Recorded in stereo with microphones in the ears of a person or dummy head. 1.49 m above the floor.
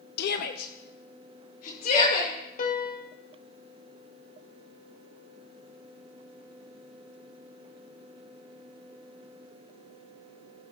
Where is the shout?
60° left (ahead or behind), 0.5 m; by 2.3 s 50° left (ahead or behind), 2 m.